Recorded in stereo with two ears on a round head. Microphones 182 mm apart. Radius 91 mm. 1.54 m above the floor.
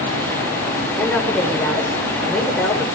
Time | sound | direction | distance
1.0 | a woman speaking | 5° left (ahead or behind) | 6 m